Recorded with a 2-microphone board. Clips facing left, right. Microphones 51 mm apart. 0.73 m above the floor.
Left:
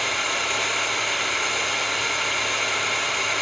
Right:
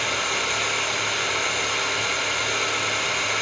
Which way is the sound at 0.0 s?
25° left (ahead or behind).